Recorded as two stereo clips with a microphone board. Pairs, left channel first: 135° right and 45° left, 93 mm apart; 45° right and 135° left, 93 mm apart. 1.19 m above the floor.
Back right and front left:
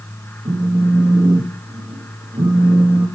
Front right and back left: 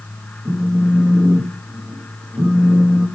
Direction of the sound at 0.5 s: 70° left.